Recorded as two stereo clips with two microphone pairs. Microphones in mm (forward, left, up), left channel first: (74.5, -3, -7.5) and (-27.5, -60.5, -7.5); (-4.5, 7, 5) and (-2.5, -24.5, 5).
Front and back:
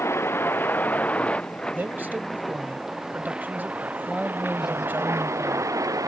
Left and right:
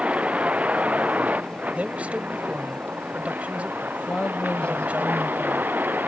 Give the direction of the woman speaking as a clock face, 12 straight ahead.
8 o'clock.